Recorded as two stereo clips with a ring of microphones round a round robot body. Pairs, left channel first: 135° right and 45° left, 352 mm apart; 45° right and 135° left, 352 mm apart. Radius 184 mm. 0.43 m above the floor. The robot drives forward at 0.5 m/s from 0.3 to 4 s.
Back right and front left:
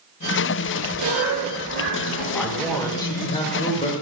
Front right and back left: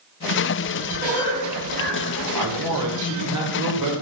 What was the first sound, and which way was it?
A cough, 75° left.